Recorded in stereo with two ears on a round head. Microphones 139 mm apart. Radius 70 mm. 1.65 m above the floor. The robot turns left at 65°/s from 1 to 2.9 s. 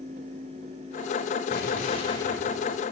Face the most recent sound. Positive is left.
turn(degrees=-20)